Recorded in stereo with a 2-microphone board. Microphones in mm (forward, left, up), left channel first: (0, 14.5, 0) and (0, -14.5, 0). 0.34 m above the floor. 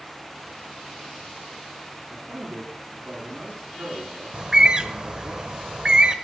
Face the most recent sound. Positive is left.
turn(degrees=-35)  # may be behind; listen again after turning